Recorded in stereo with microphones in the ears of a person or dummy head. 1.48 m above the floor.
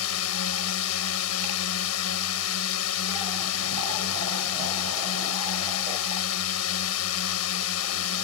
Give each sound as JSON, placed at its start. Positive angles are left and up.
{"t": 0.0, "sound": "a drone", "side_deg": 80}